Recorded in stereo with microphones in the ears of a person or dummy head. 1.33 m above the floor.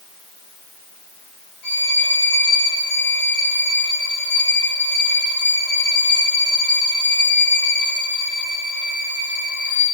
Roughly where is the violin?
Left.